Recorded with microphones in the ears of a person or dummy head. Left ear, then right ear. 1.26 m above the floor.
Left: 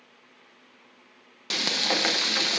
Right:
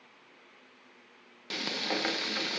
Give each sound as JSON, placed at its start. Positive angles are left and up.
{"t": 1.5, "sound": "frying", "side_deg": 15, "distance_m": 0.7}